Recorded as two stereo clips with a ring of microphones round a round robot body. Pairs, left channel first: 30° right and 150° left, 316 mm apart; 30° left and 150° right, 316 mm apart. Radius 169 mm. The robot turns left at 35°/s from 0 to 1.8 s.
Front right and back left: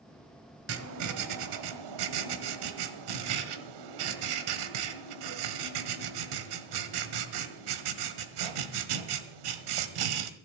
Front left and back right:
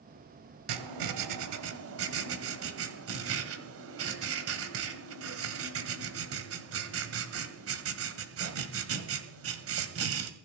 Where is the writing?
160° right, 1.5 m; by 10.3 s 160° left, 1.5 m.